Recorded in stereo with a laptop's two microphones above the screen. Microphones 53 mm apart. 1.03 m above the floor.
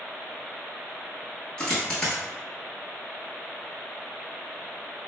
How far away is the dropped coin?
About 1.0 m.